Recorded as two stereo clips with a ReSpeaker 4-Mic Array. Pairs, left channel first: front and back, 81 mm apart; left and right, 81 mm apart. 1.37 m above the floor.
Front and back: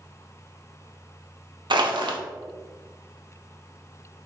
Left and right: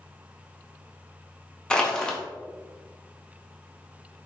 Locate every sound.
1.7 s crushing: 170° left, 0.5 m